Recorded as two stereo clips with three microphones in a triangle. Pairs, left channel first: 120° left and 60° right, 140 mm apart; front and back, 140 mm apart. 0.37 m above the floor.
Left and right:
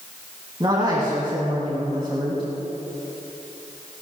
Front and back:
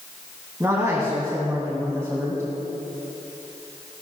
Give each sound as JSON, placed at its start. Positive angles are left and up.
{"t": 0.6, "sound": "a man speaking", "azimuth_deg": -115, "distance_m": 3.0}